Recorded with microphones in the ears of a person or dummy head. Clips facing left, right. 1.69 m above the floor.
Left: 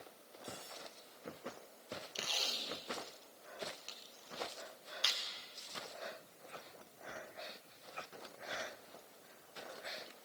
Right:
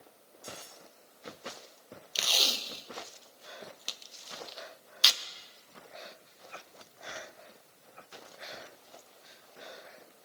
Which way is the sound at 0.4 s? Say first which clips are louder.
Right 2 dB; 55° right (ahead or behind).